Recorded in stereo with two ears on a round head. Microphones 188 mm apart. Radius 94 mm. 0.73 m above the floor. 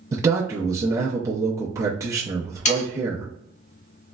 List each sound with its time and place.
0.1 s a man speaking: 15° right (ahead or behind), 0.5 m
2.6 s sawing: 35° left (ahead or behind), 0.9 m